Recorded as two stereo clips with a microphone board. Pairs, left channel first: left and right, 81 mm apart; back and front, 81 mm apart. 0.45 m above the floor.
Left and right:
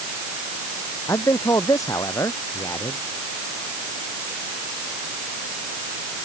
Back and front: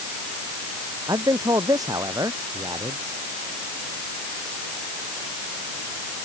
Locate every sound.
1.1 s a man speaking: 45° left